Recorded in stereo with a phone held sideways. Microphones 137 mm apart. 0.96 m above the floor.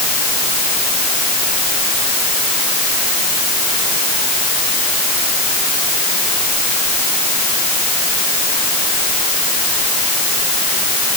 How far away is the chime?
I don't hear a chime.